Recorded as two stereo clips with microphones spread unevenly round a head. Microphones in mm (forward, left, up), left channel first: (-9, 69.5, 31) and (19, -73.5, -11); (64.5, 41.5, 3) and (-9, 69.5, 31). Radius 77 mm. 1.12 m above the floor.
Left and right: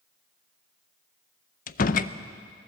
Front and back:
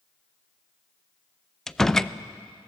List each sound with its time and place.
1.7 s a door slam: 60° left, 0.6 m